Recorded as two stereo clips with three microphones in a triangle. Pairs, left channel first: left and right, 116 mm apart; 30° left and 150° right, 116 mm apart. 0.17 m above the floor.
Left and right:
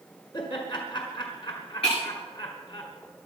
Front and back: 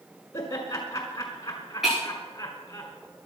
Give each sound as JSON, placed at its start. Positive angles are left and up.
{"t": 0.3, "sound": "laughter", "azimuth_deg": 80, "distance_m": 1.5}
{"t": 1.8, "sound": "breaking glass", "azimuth_deg": 125, "distance_m": 8.5}